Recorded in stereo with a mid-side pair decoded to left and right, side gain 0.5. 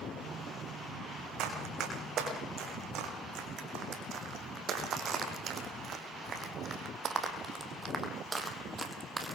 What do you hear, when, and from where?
1.4 s running footsteps: 70° right, 6.5 m; by 9.4 s 20° right, 3 m